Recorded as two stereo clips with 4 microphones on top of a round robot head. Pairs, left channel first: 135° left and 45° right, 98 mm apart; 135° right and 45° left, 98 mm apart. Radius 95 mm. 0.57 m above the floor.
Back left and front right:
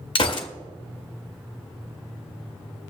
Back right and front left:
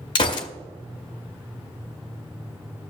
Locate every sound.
0.1 s a gunshot: straight behind, 0.7 m